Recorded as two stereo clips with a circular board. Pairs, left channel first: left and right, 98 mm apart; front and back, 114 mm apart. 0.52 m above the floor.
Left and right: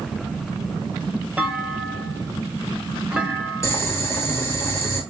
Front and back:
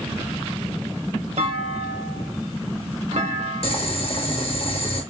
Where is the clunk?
165° right, 0.6 m.